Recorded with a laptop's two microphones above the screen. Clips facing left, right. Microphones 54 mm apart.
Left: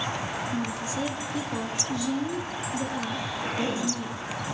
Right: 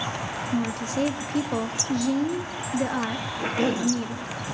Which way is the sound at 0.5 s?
50° right (ahead or behind).